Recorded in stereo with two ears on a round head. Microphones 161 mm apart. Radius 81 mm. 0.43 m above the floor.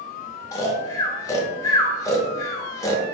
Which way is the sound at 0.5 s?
20° left (ahead or behind).